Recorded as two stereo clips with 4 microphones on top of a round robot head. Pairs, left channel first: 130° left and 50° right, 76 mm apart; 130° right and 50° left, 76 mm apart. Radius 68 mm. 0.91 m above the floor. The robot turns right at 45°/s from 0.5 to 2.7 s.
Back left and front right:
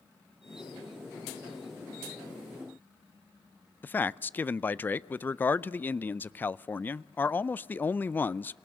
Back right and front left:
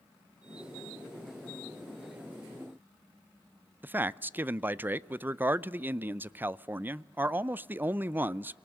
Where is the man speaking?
90° left, 0.5 m.